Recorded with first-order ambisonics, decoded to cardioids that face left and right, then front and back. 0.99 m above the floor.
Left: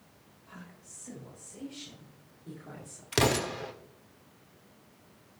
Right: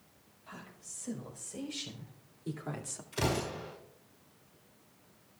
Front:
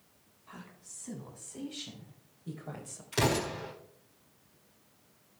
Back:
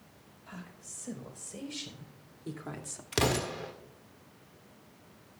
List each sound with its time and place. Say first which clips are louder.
0.5 s a woman speaking: right 2 dB, back 2 dB; 155° right, 6 m; by 3.0 s 135° right, 2 m
3.1 s an explosion: left 6 dB, even; 115° left, 1.7 m